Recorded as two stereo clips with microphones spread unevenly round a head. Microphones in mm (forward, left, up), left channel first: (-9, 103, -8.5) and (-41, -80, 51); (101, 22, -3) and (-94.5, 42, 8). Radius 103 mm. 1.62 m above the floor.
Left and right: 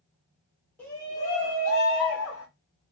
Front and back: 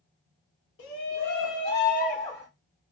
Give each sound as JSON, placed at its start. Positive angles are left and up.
{"t": 0.8, "sound": "a shout", "azimuth_deg": -20, "distance_m": 0.7}